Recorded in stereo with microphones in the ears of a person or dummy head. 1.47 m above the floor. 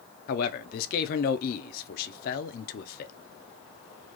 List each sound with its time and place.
0.3 s a man speaking: 50° left (ahead or behind), 0.7 m